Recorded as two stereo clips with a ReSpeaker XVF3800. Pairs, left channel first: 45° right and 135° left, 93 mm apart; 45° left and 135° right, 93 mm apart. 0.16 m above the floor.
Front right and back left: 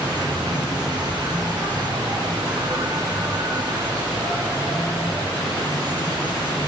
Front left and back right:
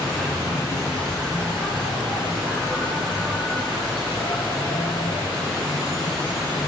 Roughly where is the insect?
Behind left.